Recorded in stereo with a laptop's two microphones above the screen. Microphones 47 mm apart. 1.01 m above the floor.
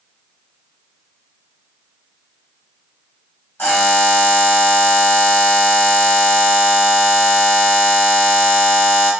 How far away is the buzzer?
About 1.3 m.